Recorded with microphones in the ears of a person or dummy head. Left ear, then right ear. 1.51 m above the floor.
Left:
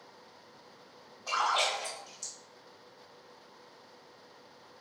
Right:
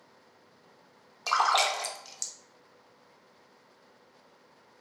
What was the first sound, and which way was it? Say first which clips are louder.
A splash: right 4 dB; 55° right (ahead or behind).